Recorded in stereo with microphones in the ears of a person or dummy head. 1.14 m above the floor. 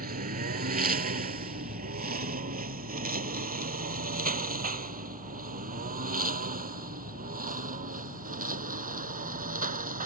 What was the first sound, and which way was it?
A lawn mower, 50° right (ahead or behind).